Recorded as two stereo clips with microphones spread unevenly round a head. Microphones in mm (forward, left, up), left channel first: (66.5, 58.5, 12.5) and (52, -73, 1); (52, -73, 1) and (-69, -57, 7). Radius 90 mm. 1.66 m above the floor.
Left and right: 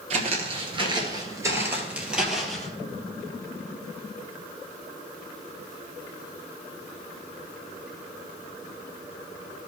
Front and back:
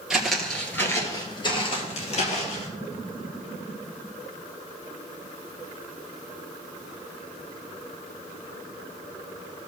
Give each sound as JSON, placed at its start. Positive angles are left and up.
{"t": 0.1, "sound": "footsteps", "azimuth_deg": -110, "distance_m": 2.0}